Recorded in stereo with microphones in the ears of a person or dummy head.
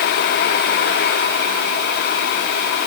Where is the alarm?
I don't hear an alarm.